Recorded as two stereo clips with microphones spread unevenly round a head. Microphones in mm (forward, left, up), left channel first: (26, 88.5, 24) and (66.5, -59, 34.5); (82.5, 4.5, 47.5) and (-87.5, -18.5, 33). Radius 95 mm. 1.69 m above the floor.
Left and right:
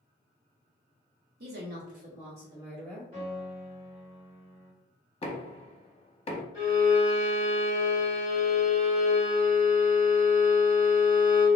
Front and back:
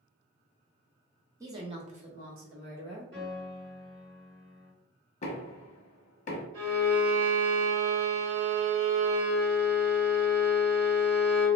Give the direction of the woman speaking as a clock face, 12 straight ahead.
3 o'clock.